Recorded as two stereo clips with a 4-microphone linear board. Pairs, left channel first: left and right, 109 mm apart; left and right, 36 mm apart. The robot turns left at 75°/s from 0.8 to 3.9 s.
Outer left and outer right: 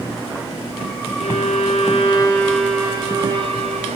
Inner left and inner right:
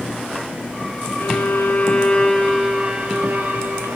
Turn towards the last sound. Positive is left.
turn(degrees=-95)